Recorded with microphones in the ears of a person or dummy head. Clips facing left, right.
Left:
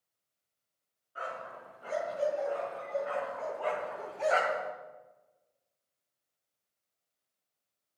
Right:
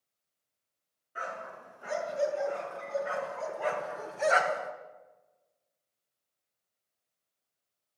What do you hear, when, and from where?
1.1 s a dog barking: 30° right (ahead or behind), 5 m